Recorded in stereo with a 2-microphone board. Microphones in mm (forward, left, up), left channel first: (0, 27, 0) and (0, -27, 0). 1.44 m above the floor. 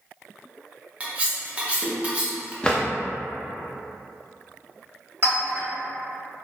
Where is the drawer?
15° left (ahead or behind), 0.5 m.